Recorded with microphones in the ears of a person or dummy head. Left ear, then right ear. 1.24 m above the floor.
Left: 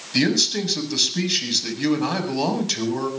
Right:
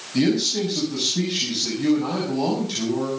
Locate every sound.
0.1 s a man speaking: 65° left (ahead or behind), 7.5 m